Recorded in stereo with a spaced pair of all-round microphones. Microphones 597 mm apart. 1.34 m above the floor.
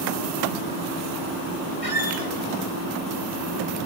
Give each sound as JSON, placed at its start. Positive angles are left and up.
{"t": 1.8, "sound": "a squeak", "side_deg": 65, "distance_m": 1.8}